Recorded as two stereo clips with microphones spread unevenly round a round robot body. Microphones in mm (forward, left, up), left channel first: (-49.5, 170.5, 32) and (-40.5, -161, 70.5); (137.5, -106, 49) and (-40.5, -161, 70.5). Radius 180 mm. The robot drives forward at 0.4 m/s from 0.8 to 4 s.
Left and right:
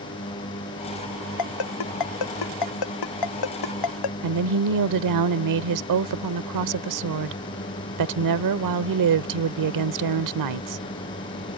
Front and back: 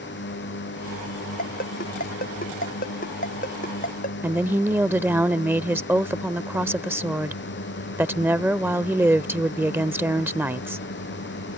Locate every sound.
0.0 s a drone: 15° left
1.4 s a ringtone: 75° left; by 4.1 s 80° left
4.2 s a woman speaking: 80° right